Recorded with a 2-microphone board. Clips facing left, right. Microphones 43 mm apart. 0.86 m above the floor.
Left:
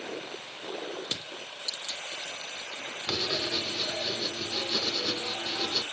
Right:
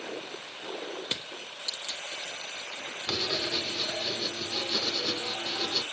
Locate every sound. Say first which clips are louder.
1.1 s crushing: right 1 dB; 20° right (ahead or behind), 1.3 m
3.1 s writing: even; 5° left (ahead or behind), 1.0 m